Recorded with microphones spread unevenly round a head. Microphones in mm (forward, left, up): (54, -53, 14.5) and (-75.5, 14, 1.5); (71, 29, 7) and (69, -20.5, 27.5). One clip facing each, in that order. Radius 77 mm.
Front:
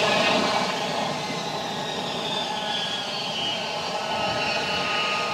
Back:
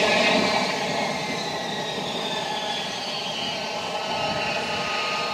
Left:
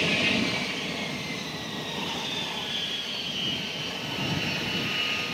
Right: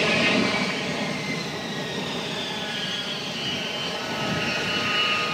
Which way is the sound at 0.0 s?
135° right.